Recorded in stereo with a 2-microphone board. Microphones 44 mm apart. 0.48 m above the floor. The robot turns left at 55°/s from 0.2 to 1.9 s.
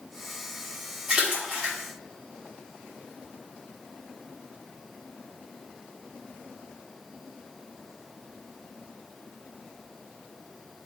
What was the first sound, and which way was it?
A splash, 10° right (ahead or behind).